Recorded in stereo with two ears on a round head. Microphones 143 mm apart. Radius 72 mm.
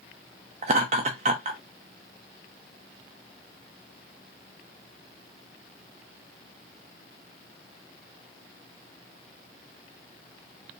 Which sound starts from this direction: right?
Laughter, at 0.6 s.